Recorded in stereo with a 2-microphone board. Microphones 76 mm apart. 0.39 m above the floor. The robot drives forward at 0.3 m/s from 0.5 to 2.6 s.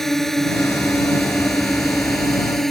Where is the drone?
5° left (ahead or behind).